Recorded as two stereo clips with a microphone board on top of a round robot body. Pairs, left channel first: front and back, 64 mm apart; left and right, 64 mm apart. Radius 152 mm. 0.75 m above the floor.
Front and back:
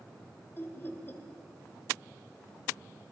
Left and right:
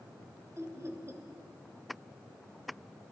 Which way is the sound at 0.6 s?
55° right.